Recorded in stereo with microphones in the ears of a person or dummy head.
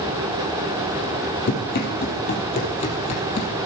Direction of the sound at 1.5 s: 55° left (ahead or behind).